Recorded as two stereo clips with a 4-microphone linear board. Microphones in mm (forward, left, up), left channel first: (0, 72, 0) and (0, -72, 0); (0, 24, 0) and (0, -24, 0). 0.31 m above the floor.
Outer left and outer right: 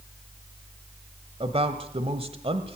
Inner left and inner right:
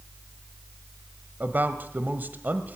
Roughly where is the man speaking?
Right.